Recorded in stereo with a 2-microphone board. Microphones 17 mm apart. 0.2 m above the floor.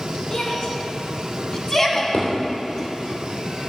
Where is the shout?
45° left (ahead or behind), 2.5 m; by 2.9 s 10° left (ahead or behind), 1.8 m.